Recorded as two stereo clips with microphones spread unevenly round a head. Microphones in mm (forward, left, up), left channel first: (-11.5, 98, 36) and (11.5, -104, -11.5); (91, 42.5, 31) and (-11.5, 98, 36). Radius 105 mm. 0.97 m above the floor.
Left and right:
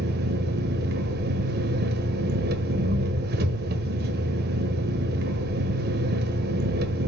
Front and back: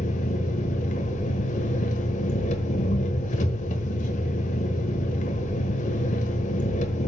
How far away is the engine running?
About 1.2 m.